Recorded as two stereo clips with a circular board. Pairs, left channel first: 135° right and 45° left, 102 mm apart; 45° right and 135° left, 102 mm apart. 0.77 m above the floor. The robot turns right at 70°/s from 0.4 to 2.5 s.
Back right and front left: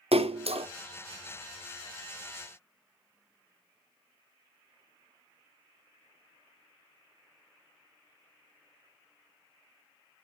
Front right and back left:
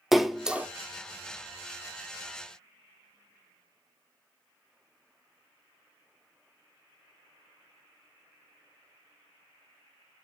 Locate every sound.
0.1 s a splash: 45° left, 0.5 m; by 0.7 s 65° left, 0.5 m